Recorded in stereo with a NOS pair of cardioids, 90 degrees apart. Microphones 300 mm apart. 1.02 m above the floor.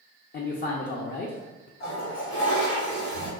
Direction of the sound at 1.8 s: 65° left.